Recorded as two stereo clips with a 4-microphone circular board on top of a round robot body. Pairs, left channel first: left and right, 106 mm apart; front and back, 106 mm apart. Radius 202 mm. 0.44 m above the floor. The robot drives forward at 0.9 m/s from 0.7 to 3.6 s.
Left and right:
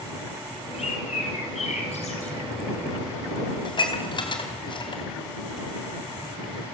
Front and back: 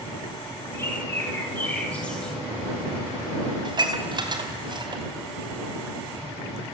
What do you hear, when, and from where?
0.7 s a bird: 65° left, 5 m; by 2.4 s 80° left, 4.5 m
3.6 s dishes clattering: 130° left, 3.5 m